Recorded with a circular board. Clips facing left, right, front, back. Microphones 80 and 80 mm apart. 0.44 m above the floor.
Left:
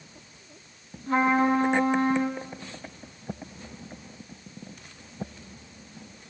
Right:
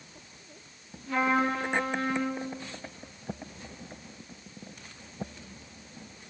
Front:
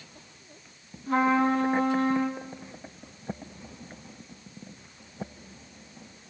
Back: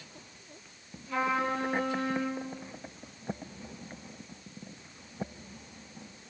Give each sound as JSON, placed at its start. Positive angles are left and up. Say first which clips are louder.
{"t": 1.1, "sound": "a trumpet", "louder": "left 4 dB, front 7 dB", "azimuth_deg": 45, "distance_m": 5.5}